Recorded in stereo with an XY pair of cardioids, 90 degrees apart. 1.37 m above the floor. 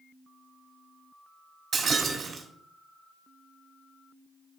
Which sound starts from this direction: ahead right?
Breaking glass, at 1.7 s.